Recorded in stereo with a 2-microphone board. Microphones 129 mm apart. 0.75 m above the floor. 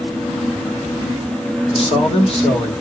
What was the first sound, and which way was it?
A man speaking, 50° left (ahead or behind).